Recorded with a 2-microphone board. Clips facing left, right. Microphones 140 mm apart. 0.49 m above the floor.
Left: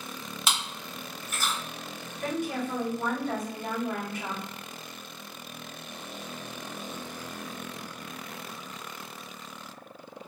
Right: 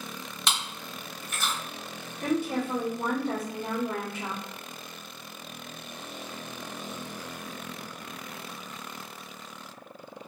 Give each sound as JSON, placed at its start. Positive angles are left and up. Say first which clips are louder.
{"t": 0.5, "sound": "chewing", "louder": "even", "side_deg": 5, "distance_m": 1.4}
{"t": 2.2, "sound": "a woman speaking", "louder": "right 3 dB", "side_deg": -30, "distance_m": 1.3}